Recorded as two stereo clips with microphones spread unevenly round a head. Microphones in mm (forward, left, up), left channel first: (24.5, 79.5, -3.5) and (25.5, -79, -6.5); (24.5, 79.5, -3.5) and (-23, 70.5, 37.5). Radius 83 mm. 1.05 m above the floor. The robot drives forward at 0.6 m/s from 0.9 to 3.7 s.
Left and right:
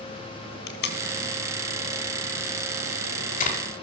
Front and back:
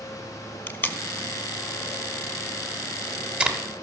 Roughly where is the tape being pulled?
Left.